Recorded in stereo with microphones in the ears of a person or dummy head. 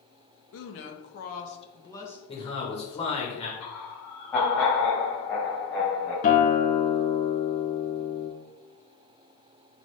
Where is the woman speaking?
65° left (ahead or behind), 0.9 m; by 2.2 s 5° left (ahead or behind), 0.8 m.